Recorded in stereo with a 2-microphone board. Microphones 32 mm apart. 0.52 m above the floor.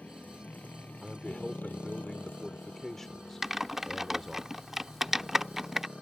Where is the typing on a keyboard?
10° right (ahead or behind).